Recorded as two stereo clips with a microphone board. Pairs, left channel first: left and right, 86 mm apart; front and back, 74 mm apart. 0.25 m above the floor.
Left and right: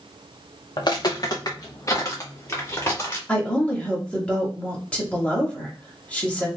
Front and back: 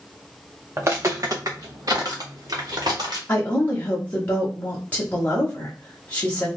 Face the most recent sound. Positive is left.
turn(degrees=30)